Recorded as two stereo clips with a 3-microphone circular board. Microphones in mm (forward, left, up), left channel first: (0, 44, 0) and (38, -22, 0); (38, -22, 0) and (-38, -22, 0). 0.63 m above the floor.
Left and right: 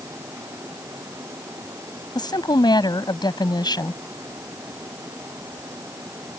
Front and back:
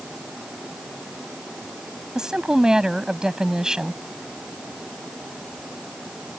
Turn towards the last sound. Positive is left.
turn(degrees=100)